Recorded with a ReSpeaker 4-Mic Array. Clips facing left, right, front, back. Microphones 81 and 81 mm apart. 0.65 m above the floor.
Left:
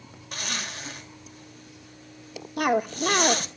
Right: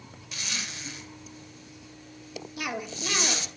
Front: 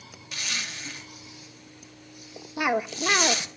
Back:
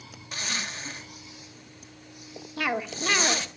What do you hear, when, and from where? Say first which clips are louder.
0.3 s a zipper: left 4 dB, back 2 dB; 125° left, 3 m
2.6 s a cough: left 11 dB, front 4 dB; 70° left, 1.6 m